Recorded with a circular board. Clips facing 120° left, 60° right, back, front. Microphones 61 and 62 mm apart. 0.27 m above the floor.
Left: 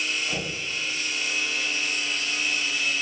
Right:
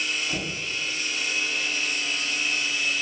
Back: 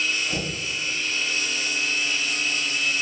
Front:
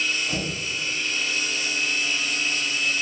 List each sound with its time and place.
0.3 s knocking: 60° left, 2.0 m